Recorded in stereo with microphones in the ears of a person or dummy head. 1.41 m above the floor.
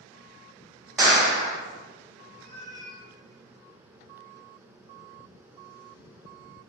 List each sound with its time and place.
1.0 s a clap: 10° right (ahead or behind), 1.3 m
2.4 s a cat meowing: 20° left (ahead or behind), 1.4 m